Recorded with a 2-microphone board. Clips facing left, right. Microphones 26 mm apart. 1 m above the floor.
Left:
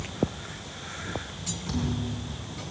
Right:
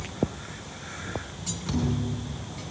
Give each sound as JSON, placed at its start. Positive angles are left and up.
{"t": 1.7, "sound": "a thud", "side_deg": -75, "distance_m": 3.0}